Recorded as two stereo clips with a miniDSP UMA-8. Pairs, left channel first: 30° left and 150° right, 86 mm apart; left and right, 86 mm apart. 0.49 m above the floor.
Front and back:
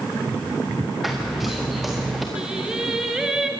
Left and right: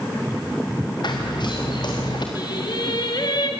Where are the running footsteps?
120° left, 5 m.